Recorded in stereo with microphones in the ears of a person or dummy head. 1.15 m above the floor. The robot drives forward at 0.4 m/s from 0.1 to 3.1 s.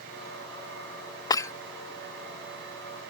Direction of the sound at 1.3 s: 25° left (ahead or behind).